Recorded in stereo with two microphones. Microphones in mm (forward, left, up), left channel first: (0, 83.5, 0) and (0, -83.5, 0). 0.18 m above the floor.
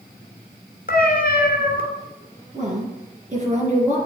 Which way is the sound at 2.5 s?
45° right (ahead or behind).